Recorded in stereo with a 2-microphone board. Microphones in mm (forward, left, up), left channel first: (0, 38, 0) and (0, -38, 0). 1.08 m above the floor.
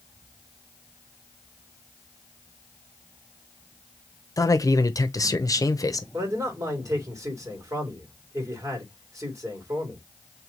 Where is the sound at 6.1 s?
50° right (ahead or behind), 2.5 m.